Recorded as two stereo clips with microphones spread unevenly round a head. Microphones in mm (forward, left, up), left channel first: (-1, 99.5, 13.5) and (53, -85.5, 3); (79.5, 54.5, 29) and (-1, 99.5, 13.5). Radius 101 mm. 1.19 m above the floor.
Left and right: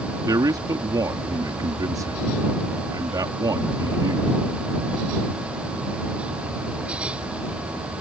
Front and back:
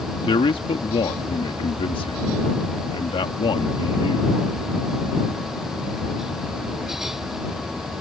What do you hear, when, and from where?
0.2 s a man speaking: straight ahead